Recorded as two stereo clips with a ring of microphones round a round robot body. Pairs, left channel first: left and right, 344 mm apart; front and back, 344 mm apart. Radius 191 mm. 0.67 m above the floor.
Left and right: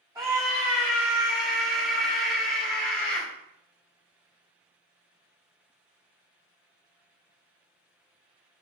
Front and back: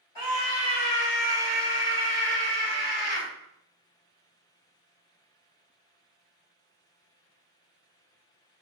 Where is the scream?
10° right, 4.5 m; by 3.3 s 10° left, 3.5 m.